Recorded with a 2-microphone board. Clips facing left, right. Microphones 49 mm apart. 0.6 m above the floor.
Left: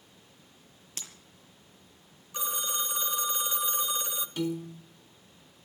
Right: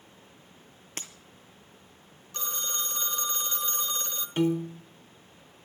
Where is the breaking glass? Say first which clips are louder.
Right 4 dB; 45° right (ahead or behind), 2.5 m.